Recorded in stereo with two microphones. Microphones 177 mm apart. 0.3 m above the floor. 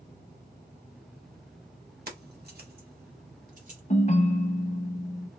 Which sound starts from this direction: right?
Keys jangling, at 2.1 s.